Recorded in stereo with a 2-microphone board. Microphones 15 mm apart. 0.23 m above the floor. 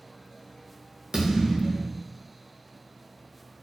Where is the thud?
75° right (ahead or behind), 1.0 m.